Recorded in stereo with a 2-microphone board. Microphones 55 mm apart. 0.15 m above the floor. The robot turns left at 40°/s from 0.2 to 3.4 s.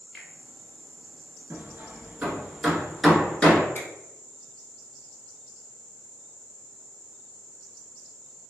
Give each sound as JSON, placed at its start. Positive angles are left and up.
{"t": 0.1, "sound": "a finger snap", "side_deg": 0, "distance_m": 1.7}
{"t": 1.5, "sound": "hammering", "side_deg": -45, "distance_m": 0.8}
{"t": 3.8, "sound": "a finger snap", "side_deg": 35, "distance_m": 1.0}